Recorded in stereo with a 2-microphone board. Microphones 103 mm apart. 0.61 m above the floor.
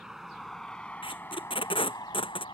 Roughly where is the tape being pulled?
Left.